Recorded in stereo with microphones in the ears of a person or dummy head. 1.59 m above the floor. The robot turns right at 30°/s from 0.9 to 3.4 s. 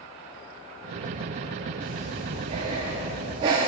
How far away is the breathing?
About 0.5 m.